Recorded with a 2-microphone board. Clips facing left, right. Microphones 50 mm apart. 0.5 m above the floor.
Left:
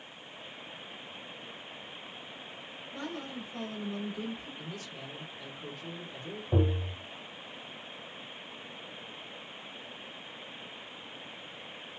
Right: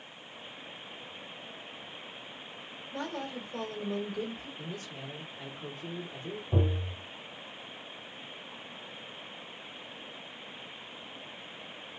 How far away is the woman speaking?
About 1.6 m.